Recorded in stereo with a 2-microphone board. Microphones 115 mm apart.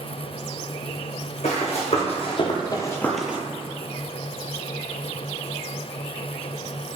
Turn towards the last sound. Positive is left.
turn(degrees=-15)  # may be behind; listen again after turning